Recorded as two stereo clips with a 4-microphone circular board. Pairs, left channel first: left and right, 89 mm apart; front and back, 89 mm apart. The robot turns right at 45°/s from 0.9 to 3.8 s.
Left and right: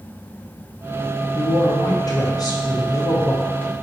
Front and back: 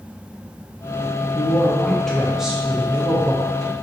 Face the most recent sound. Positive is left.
turn(degrees=160)